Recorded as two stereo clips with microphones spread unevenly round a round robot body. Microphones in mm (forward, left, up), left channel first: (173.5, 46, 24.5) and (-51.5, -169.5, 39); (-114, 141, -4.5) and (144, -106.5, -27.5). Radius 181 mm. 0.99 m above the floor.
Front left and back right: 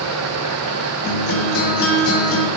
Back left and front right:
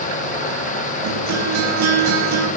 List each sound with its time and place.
1.0 s a guitar: straight ahead, 8 m